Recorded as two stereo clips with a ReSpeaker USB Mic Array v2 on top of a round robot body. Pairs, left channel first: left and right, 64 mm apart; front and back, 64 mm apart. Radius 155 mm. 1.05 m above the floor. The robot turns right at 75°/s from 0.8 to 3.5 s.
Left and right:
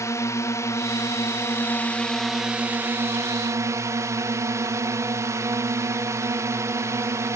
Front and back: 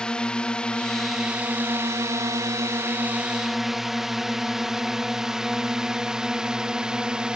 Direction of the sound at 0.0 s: 75° left.